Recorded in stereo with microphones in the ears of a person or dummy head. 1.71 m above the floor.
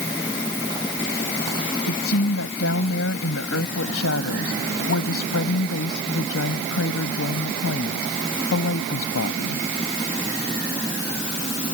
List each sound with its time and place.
1.9 s a woman speaking: 80° left